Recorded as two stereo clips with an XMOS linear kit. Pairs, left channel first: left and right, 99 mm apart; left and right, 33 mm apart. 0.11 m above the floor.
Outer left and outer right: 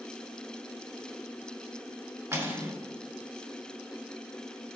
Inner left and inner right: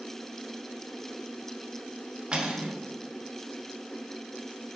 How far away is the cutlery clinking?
About 0.8 m.